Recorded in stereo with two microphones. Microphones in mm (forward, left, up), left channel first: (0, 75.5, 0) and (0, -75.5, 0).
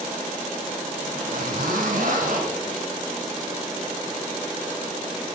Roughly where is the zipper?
Right.